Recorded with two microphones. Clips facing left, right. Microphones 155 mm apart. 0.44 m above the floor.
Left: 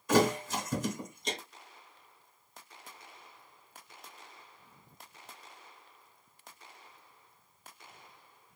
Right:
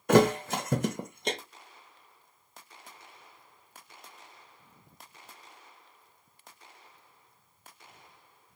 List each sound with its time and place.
0.1 s a thud: 55° right (ahead or behind), 0.6 m